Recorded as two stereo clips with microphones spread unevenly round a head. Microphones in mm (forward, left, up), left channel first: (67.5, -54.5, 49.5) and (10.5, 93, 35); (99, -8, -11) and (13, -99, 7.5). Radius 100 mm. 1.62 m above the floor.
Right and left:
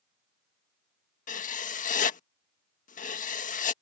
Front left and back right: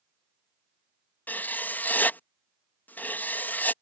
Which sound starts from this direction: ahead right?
Writing, at 1.3 s.